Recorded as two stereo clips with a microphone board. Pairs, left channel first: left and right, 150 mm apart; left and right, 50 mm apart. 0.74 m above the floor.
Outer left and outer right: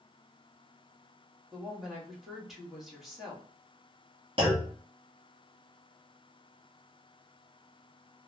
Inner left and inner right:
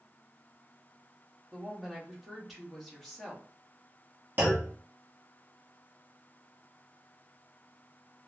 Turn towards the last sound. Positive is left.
turn(degrees=-35)  # may be behind; listen again after turning